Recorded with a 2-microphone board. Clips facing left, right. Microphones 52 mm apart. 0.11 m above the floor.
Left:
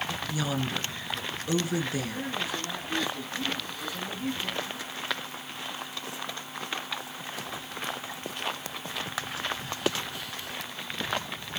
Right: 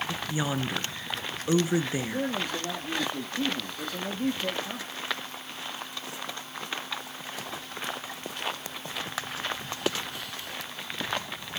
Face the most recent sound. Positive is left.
turn(degrees=-60)  # may be behind; listen again after turning